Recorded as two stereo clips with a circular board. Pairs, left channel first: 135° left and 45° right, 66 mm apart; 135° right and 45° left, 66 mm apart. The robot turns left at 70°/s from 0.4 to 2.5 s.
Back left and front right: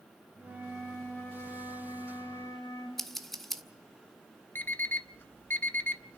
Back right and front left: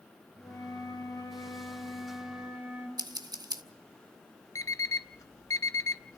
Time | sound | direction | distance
0.4 | a flute | 105° right | 5 m
3.0 | scissors | 50° left | 1.1 m
4.5 | an alarm clock | 165° right | 0.6 m